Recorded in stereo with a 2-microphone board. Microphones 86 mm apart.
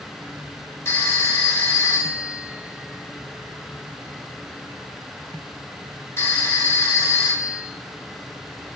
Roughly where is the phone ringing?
Left.